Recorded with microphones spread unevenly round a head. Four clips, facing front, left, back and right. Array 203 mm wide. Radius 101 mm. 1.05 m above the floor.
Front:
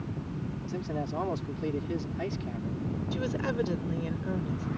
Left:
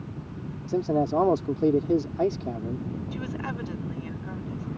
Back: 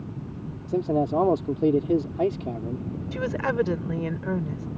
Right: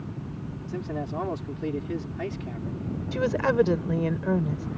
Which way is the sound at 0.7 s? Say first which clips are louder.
Left 9 dB, back 12 dB; 140° left.